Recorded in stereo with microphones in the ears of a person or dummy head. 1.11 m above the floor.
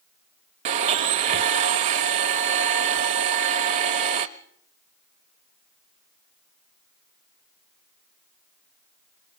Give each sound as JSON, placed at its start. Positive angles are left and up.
{"t": 0.7, "sound": "a blender", "side_deg": -30, "distance_m": 0.9}